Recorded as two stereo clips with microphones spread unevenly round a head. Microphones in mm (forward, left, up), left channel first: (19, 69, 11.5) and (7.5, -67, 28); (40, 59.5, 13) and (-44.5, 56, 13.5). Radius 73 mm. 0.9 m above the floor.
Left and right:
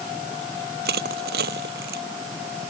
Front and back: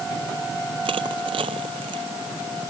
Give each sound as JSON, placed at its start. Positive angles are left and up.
{"t": 0.8, "sound": "crushing", "azimuth_deg": -120}